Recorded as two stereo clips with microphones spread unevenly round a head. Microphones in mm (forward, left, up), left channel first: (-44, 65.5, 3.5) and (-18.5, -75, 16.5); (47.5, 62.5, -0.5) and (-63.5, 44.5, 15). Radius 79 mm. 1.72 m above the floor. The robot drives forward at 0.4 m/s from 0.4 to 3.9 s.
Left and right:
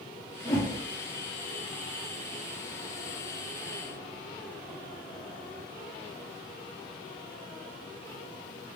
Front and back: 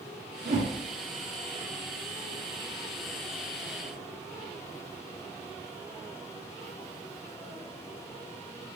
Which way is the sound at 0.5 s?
165° left.